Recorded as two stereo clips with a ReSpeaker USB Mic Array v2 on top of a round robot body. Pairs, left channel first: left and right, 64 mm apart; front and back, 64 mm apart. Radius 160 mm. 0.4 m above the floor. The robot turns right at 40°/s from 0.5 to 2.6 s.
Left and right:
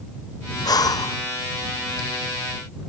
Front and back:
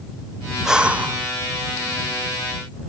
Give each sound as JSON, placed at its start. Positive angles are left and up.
{"t": 0.7, "sound": "breathing", "azimuth_deg": 100}